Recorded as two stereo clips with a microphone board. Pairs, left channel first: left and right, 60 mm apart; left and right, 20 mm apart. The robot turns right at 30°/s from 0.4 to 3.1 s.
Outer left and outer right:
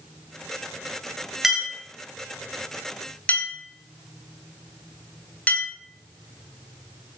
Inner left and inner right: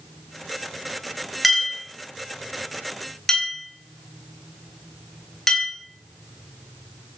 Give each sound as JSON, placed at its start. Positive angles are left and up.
{"t": 1.4, "sound": "a clink", "side_deg": -5, "distance_m": 1.0}